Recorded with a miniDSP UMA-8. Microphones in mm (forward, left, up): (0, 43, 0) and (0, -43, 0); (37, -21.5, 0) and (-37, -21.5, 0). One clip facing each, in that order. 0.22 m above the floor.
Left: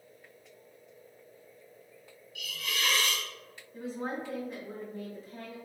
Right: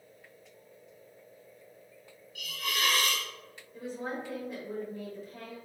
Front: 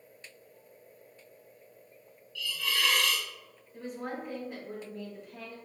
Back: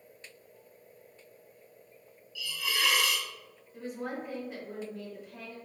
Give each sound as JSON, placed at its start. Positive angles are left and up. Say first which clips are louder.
{"t": 2.4, "sound": "a hiss", "louder": "right 2 dB, front 1 dB", "azimuth_deg": -105, "distance_m": 0.8}
{"t": 3.7, "sound": "a woman speaking", "louder": "left 1 dB, back 1 dB", "azimuth_deg": 95, "distance_m": 1.4}